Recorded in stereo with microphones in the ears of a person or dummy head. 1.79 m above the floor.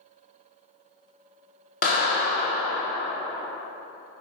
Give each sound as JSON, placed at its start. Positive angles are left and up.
{"t": 1.8, "sound": "a clap", "side_deg": 35, "distance_m": 1.0}